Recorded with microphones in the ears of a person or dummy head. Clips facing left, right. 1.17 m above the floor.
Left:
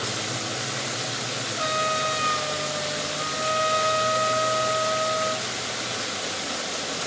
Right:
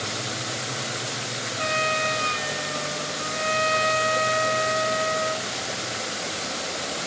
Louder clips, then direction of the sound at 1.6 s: Right 1 dB; 20° right (ahead or behind).